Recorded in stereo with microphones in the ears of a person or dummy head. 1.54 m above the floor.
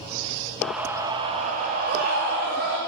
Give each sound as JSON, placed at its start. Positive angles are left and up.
{"t": 0.6, "sound": "a scream", "side_deg": 0, "distance_m": 1.4}